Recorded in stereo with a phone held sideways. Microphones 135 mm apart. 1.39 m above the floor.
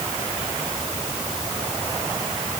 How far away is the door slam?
No door slam in this recording.